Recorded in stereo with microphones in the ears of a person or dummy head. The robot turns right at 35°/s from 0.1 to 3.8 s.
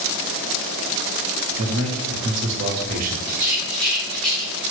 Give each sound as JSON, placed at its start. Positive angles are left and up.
{"t": 1.6, "sound": "a man speaking", "azimuth_deg": -100, "distance_m": 0.7}
{"t": 3.3, "sound": "a rattle", "side_deg": -10, "distance_m": 1.2}